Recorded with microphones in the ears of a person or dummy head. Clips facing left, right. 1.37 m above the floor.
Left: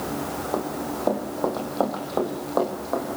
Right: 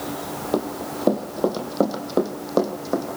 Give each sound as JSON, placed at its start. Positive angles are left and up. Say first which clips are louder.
{"t": 0.5, "sound": "running footsteps", "louder": "right 4 dB", "side_deg": -45, "distance_m": 3.0}